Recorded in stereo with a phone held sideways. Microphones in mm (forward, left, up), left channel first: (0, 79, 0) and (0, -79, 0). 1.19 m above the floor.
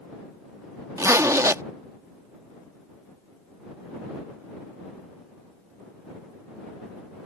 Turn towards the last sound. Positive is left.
turn(degrees=-20)  # may be behind; listen again after turning